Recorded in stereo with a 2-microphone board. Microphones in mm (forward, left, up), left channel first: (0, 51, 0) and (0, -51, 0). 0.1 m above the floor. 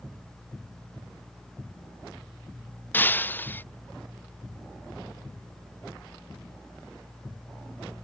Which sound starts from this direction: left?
Breaking glass, at 2.9 s.